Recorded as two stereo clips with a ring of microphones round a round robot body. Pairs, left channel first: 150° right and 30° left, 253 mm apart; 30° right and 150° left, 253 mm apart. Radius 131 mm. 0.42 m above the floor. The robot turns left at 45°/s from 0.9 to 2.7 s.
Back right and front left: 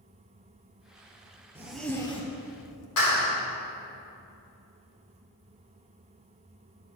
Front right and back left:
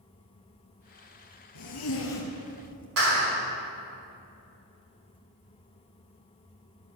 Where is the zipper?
50° right, 1.6 m; by 2.9 s 105° right, 1.6 m.